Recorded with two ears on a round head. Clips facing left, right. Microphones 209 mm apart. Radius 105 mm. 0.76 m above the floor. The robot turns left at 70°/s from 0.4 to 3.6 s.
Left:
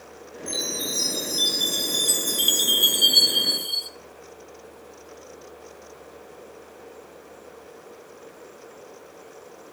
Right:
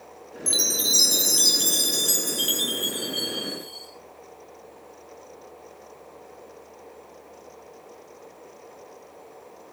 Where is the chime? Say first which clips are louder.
Even; 45° right, 5 m; by 3.9 s 95° left, 5 m.